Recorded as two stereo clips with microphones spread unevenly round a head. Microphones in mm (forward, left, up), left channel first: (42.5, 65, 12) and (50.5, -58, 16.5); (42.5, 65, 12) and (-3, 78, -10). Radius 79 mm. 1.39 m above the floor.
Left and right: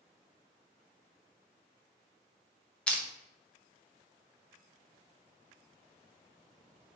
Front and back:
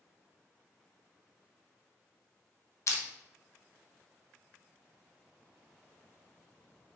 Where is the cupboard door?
No cupboard door in this recording.